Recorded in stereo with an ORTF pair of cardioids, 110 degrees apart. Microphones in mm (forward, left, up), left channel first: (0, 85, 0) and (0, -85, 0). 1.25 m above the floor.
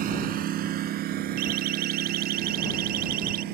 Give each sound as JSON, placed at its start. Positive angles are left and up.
{"t": 0.0, "sound": "a lawn mower", "azimuth_deg": -65}
{"t": 1.4, "sound": "a siren", "azimuth_deg": -70}